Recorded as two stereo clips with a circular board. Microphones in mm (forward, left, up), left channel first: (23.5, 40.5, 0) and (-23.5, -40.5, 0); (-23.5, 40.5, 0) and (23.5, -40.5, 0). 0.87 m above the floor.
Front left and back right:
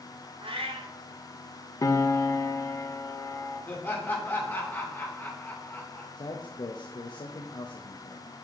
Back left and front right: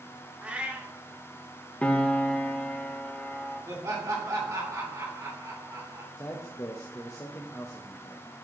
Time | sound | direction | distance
0.4 | a cat meowing | 135° right | 0.9 m
1.8 | a piano | 55° left | 0.6 m
3.7 | laughter | 10° right | 2.5 m
6.2 | a man speaking | 70° left | 0.7 m